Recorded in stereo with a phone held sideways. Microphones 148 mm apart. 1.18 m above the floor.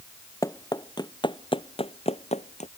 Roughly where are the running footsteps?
Left.